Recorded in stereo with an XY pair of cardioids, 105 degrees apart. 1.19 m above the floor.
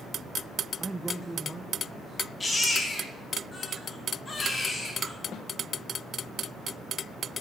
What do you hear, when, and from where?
0.8 s a man speaking: 15° right, 0.5 m
2.4 s a baby crying: 20° left, 1.9 m
5.3 s a snare drum: 60° left, 0.8 m